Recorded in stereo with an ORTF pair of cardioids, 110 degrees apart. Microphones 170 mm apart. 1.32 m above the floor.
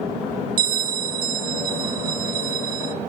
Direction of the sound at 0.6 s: 60° right.